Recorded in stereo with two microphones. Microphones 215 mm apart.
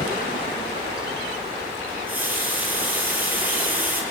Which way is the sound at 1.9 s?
10° right (ahead or behind).